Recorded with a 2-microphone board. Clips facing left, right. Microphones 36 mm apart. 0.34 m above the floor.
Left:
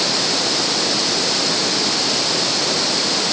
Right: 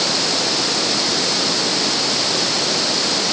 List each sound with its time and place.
Only background noise.